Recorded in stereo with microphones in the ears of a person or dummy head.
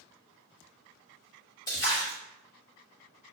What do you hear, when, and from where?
1.7 s a splash: 20° left (ahead or behind), 1.3 m